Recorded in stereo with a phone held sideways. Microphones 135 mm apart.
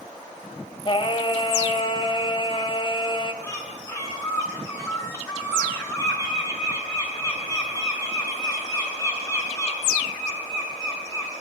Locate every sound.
0.8 s singing: 35° left (ahead or behind), 2.5 m
3.4 s a bird: 20° left (ahead or behind), 8 m